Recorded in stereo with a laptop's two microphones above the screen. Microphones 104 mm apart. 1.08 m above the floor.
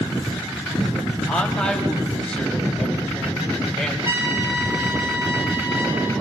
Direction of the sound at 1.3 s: 5° left (ahead or behind).